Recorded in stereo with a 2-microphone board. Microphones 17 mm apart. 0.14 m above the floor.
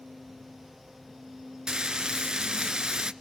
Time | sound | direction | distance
1.7 | frying | 50° right (ahead or behind) | 0.7 m